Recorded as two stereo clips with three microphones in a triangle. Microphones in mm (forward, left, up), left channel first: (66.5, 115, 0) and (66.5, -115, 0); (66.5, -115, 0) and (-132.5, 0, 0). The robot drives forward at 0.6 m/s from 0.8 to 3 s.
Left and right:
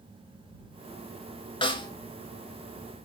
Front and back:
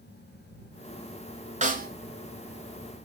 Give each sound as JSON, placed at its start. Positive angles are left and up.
{"t": 1.6, "sound": "a snare drum", "azimuth_deg": 135, "distance_m": 0.8}